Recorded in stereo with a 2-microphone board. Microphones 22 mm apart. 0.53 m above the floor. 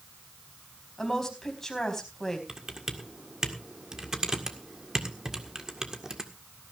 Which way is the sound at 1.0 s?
15° left (ahead or behind).